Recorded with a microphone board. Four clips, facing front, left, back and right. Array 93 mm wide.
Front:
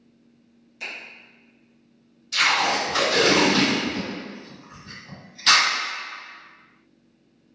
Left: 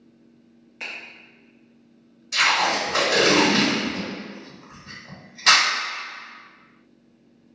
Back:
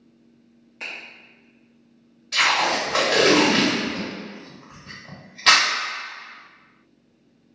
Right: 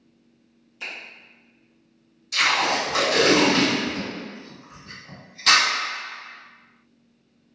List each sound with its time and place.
0.8 s a finger snap: 125° left, 0.9 m
2.3 s tape being pulled: 155° left, 1.2 m